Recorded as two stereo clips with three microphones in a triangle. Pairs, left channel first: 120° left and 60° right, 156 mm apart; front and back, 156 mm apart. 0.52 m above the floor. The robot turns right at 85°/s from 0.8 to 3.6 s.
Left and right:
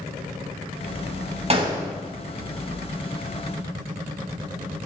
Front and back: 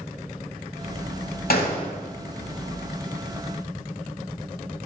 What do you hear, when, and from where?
1.5 s a gunshot: 10° right, 0.9 m; by 1.9 s 25° left, 0.9 m